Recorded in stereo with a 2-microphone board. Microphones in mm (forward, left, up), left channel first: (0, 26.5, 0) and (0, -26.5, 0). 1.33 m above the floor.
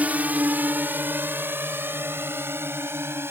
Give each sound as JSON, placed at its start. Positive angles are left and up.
{"t": 0.0, "sound": "a drone", "side_deg": -30}